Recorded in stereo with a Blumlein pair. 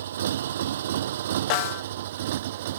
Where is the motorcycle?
60° right; by 2.8 s 55° right.